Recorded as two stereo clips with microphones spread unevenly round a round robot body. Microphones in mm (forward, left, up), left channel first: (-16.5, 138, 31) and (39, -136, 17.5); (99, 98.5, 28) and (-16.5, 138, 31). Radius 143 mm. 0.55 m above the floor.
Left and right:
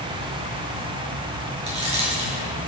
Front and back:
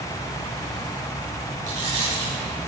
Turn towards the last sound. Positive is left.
turn(degrees=-150)